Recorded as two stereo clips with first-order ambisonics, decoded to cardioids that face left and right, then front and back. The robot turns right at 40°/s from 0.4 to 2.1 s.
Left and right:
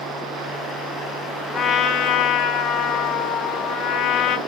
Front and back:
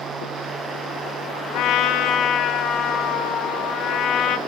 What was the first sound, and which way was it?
A trumpet, 30° left.